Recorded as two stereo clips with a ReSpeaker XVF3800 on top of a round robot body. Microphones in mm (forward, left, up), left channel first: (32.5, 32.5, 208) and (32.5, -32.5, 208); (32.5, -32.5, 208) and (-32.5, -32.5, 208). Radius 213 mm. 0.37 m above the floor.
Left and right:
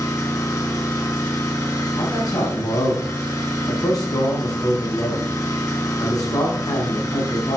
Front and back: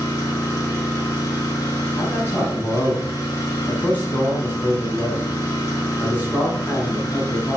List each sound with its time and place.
0.0 s an engine running: 50° left, 3.5 m
2.0 s a man speaking: 65° left, 4.5 m